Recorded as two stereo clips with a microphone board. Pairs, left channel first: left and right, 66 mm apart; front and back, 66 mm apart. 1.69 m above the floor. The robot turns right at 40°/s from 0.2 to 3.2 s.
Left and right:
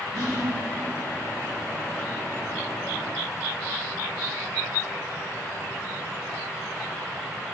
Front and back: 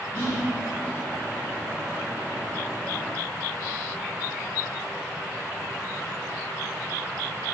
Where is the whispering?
65° right, 0.7 m; by 0.5 s 55° right, 0.7 m.